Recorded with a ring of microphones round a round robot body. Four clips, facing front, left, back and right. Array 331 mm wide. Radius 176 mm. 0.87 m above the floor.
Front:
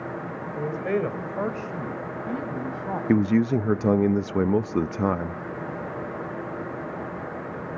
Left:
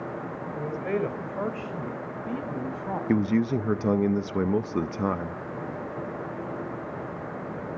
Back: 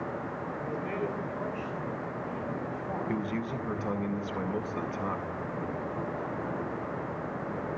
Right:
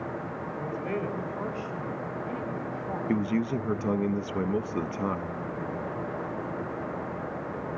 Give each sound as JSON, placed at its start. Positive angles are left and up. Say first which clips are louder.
{"t": 0.5, "sound": "a man speaking", "louder": "left 4 dB, front 10 dB", "azimuth_deg": 15, "distance_m": 3.0}
{"t": 3.1, "sound": "a man speaking", "louder": "left 4 dB, front 16 dB", "azimuth_deg": 20, "distance_m": 0.7}